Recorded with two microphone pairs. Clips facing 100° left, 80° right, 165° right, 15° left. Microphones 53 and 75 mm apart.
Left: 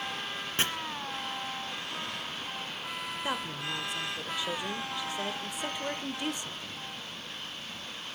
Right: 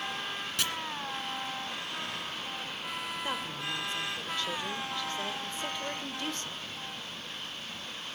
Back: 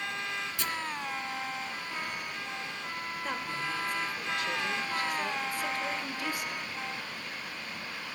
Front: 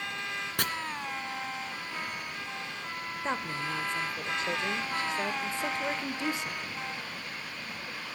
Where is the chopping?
45° left, 2 m.